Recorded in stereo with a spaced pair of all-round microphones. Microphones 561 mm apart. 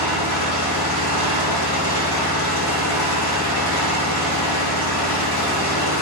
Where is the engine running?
45° left (ahead or behind), 3.5 m.